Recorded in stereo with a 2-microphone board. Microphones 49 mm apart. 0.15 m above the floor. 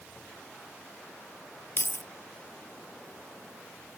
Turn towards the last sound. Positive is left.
turn(degrees=50)  # may be behind; listen again after turning